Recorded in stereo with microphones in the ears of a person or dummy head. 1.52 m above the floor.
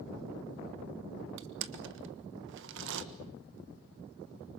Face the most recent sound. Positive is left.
turn(degrees=-70)  # may be behind; listen again after turning